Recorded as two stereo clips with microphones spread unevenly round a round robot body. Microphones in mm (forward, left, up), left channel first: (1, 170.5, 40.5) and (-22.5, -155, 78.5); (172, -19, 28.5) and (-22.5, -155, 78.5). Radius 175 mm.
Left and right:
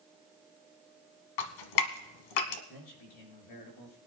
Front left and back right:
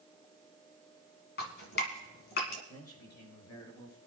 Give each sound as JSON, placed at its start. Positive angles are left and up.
{"t": 1.4, "sound": "dripping", "azimuth_deg": 90, "distance_m": 1.6}
{"t": 2.7, "sound": "a man speaking", "azimuth_deg": 65, "distance_m": 6.0}